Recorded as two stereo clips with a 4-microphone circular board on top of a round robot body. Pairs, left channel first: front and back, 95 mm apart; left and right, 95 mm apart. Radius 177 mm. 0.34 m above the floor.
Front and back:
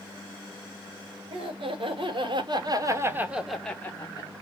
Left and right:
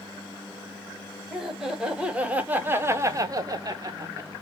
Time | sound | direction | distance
1.3 | laughter | 175° right | 2.0 m